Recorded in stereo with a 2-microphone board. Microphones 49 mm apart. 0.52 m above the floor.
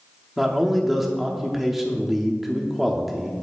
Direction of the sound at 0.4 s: 5° right (ahead or behind).